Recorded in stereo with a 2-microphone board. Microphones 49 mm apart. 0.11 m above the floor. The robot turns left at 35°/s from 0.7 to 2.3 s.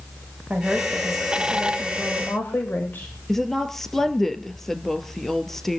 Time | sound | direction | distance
0.5 | a woman speaking | 160° right | 7.5 m
3.3 | a woman speaking | 5° left (ahead or behind) | 2 m